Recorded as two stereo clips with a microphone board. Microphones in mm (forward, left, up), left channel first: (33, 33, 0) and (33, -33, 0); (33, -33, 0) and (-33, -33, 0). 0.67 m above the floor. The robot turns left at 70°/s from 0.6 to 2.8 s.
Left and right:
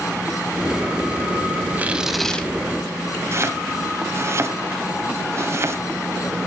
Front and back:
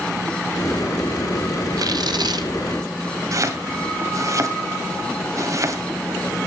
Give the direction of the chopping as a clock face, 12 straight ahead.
5 o'clock.